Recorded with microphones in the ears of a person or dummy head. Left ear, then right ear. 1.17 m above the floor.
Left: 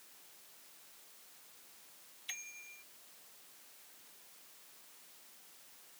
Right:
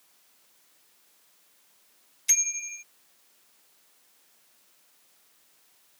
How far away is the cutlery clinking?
I don't hear cutlery clinking.